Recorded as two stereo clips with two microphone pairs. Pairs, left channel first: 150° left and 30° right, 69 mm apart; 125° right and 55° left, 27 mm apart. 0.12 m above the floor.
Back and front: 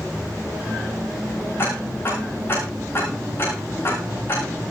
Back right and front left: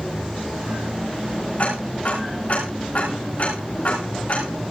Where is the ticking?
160° right, 9.5 m.